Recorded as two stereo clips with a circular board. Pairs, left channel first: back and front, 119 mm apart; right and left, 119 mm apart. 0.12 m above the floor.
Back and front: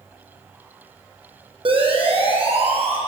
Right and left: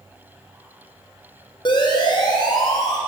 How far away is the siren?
About 6 m.